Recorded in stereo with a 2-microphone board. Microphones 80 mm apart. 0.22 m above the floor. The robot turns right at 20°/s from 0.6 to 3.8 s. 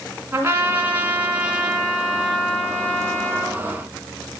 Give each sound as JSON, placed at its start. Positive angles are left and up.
{"t": 0.3, "sound": "a trumpet", "azimuth_deg": -35, "distance_m": 2.5}